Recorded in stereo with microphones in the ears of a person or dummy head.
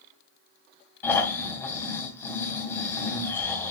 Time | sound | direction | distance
1.0 | snoring | 15° left (ahead or behind) | 3 m